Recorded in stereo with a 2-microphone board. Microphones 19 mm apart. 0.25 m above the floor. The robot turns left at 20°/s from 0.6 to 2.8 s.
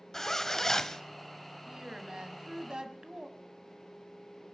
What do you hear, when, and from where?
0.1 s a zipper: 25° left (ahead or behind), 0.7 m
1.7 s a woman speaking: 40° right (ahead or behind), 1.7 m; by 3.3 s 45° right (ahead or behind), 1.7 m